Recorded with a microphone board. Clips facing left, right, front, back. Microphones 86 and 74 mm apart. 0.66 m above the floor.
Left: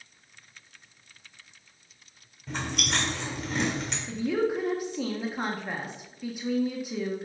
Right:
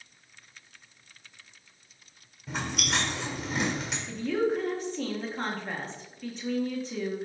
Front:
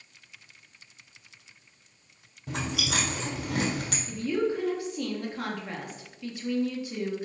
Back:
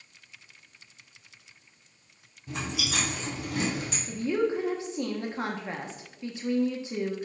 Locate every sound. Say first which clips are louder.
2.5 s chewing: even, front 2 dB; 5° right, 1.9 m
4.1 s a woman speaking: left 1 dB, back 1 dB; 155° left, 1.1 m